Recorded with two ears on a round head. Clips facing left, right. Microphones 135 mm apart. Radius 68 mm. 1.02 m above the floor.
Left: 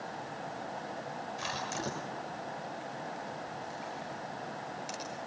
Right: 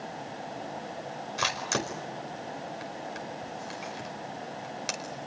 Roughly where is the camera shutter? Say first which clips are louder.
Right 7 dB; right.